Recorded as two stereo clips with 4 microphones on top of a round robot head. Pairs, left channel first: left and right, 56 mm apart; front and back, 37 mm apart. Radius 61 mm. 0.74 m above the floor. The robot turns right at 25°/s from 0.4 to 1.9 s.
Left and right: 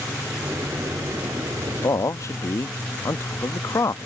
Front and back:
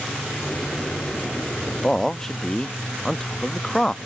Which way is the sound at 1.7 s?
70° left.